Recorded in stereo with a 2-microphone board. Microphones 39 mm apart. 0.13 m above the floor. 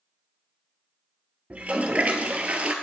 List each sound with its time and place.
1.5 s a toilet flushing: 40° right (ahead or behind), 0.6 m